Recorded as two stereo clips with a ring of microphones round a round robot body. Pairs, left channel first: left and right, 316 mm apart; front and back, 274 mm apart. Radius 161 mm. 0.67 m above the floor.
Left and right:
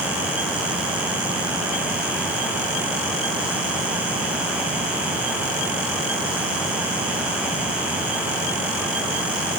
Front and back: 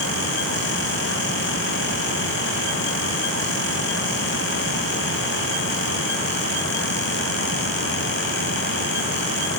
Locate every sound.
Only background noise.